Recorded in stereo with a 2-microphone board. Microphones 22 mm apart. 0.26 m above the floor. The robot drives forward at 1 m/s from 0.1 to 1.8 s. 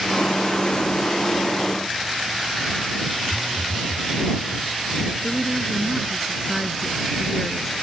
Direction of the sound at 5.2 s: 5° right (ahead or behind).